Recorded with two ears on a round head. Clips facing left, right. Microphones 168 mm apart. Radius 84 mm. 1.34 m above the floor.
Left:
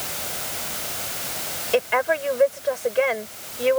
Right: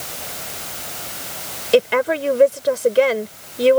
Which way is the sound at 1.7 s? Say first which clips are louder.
Right 6 dB; 50° right (ahead or behind).